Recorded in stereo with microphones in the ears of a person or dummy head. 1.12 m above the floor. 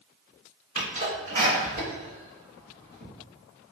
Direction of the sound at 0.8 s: 45° right (ahead or behind).